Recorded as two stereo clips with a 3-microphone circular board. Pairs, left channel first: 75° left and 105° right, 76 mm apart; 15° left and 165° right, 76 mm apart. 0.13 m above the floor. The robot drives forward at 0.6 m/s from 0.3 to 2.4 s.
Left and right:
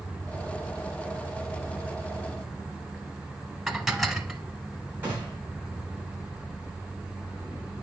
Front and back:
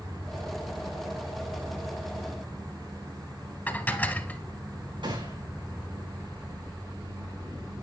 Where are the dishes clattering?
20° right, 0.8 m.